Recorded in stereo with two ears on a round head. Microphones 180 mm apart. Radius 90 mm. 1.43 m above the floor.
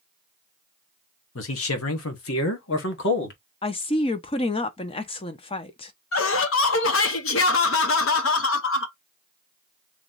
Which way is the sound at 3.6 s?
25° left (ahead or behind).